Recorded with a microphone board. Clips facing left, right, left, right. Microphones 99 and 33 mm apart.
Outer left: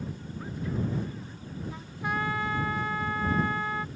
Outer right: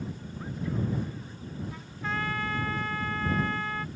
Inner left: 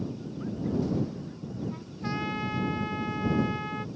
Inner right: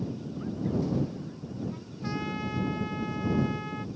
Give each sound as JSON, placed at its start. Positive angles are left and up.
{"t": 1.7, "sound": "a trumpet", "side_deg": 15}